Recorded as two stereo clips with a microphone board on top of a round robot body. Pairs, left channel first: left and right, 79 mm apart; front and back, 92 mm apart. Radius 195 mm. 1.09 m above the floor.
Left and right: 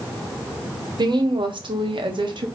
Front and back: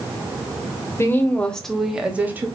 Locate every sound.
1.0 s a woman speaking: 60° right, 1.6 m; by 2.5 s 110° right, 1.8 m